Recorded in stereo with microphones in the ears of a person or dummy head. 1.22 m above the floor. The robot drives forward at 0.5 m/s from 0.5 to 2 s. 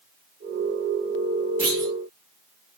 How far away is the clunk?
About 2.5 m.